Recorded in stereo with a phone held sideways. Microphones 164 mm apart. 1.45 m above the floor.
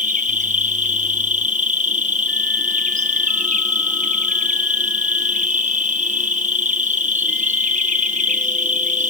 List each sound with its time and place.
0.0 s an insect: 50° right (ahead or behind), 0.9 m